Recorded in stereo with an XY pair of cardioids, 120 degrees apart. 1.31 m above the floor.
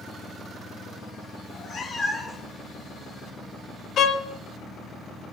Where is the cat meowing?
45° left, 1.7 m; by 2.5 s 10° left, 1.3 m.